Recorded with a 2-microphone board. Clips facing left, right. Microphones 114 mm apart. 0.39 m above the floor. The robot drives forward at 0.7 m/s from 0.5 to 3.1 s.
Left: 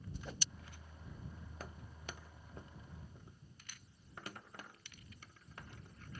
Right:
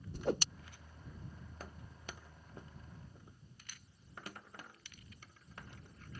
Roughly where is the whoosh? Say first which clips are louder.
Right 16 dB; right.